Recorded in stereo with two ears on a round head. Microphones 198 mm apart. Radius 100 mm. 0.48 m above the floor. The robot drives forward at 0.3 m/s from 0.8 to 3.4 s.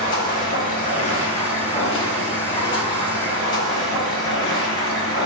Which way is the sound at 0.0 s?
40° left (ahead or behind).